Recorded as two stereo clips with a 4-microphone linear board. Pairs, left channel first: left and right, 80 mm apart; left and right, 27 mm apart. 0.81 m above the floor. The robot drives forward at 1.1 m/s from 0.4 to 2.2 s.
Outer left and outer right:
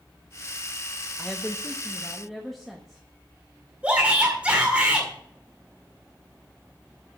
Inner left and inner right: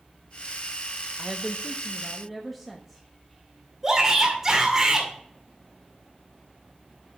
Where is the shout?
15° right (ahead or behind), 2 m.